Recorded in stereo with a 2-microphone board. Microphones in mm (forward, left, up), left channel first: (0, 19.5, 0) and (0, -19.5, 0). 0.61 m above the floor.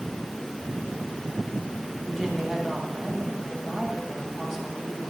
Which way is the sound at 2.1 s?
10° right (ahead or behind).